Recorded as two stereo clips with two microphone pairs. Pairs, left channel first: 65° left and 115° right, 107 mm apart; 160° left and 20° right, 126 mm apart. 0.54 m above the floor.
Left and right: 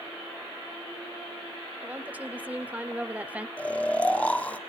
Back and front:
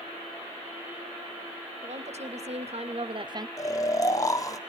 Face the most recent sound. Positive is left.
turn(degrees=130)